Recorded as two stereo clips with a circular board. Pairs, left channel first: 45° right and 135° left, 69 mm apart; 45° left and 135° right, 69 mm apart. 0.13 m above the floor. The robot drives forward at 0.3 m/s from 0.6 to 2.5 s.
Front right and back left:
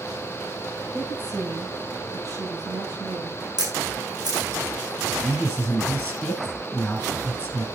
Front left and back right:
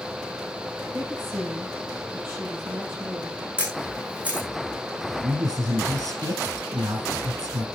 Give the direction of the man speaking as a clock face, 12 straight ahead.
4 o'clock.